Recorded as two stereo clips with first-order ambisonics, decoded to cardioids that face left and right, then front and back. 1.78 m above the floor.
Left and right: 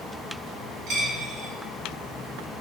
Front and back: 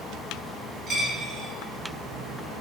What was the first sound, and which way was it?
A dropped coin, 120° right.